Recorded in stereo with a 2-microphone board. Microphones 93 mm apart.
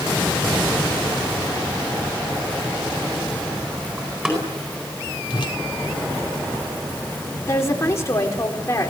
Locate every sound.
4.0 s a door slam: 10° right (ahead or behind), 10 m
5.3 s a whoosh: 60° left (ahead or behind), 1.7 m
7.5 s a woman speaking: 30° left (ahead or behind), 4.5 m